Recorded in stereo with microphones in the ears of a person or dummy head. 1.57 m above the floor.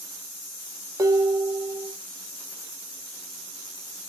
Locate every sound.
1.0 s dishes clattering: 15° right (ahead or behind), 2 m